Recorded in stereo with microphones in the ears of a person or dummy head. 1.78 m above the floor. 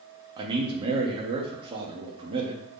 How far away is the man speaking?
About 0.6 m.